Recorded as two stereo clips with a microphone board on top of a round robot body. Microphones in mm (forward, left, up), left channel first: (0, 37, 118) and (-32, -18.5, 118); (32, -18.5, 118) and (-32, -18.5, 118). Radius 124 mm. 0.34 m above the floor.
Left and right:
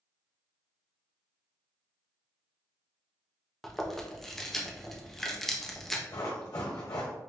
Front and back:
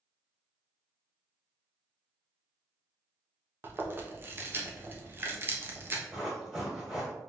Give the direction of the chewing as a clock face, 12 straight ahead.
7 o'clock.